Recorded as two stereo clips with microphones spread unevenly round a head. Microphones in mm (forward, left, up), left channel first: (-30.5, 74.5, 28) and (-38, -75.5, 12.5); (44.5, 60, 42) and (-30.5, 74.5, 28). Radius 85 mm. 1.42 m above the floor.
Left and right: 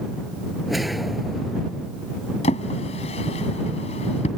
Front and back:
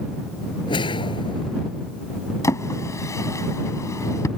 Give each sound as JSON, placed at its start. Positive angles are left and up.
{"t": 0.7, "sound": "a whoosh", "azimuth_deg": -5}
{"t": 2.4, "sound": "a drawer", "azimuth_deg": 30}